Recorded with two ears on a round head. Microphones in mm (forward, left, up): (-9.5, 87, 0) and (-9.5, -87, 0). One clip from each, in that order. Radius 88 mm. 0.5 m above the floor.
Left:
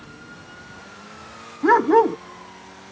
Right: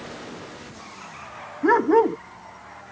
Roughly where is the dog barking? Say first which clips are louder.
Left 2 dB; centre.